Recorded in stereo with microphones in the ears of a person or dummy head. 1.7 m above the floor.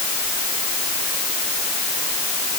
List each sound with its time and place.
Only background noise.